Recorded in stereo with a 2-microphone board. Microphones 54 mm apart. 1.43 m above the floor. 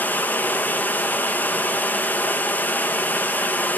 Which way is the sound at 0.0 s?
30° left (ahead or behind).